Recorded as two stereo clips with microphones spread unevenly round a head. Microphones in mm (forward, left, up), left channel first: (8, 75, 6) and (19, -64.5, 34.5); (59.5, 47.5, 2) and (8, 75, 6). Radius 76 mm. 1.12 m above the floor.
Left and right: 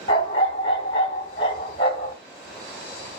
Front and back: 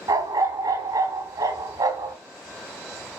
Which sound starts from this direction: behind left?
A dog barking, at 0.1 s.